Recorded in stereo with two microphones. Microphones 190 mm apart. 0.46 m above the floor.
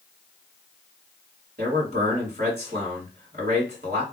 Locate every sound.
1.6 s a man speaking: 55° right (ahead or behind), 1.8 m